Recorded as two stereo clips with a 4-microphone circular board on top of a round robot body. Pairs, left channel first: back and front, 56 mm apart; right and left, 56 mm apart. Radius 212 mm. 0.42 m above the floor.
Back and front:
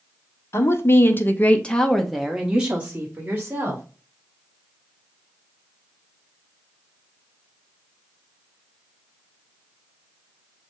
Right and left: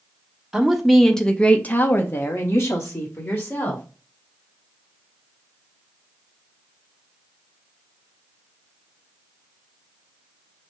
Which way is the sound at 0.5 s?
170° left.